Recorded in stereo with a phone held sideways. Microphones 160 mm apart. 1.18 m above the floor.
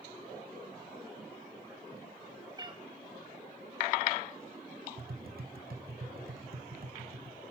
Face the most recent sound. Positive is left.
turn(degrees=-70)  # may be behind; listen again after turning